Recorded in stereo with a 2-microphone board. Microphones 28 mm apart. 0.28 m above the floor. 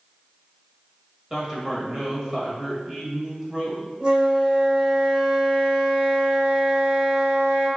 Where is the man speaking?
20° right (ahead or behind), 1.2 m.